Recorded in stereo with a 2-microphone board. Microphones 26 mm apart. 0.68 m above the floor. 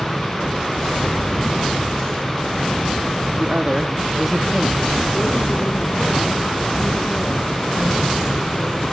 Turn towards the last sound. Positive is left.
turn(degrees=50)  # may be behind; listen again after turning